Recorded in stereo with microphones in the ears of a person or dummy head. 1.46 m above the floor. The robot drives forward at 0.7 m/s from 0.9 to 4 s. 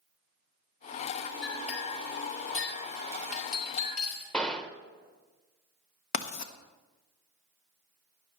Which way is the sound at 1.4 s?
35° left (ahead or behind).